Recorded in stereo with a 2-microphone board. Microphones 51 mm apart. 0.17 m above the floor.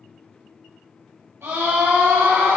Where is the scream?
55° right (ahead or behind), 3 m; by 2.6 s 65° right (ahead or behind), 3 m.